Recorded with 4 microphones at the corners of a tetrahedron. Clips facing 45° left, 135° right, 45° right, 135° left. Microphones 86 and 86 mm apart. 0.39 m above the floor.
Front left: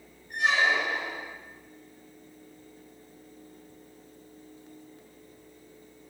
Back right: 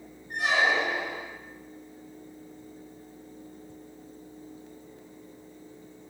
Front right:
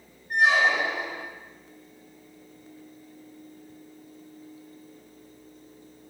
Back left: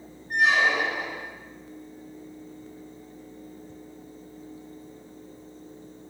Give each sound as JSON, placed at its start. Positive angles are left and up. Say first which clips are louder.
{"t": 0.3, "sound": "a squeak", "louder": "even, front right 1 dB", "azimuth_deg": -110, "distance_m": 1.5}